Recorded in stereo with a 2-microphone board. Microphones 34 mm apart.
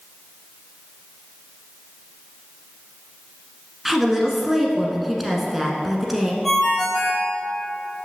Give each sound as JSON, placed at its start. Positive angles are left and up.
{"t": 3.9, "sound": "a woman speaking", "side_deg": -5, "distance_m": 1.1}
{"t": 6.4, "sound": "a ringtone", "side_deg": 5, "distance_m": 3.0}